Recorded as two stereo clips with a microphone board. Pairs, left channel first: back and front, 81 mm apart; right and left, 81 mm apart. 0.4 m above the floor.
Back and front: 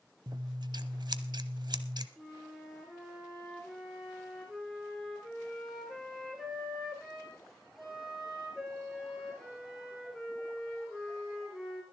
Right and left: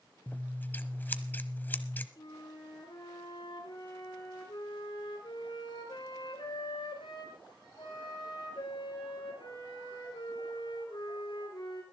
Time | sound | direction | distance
0.3 | scissors | 25° right | 0.9 m
2.2 | a flute | 85° right | 5 m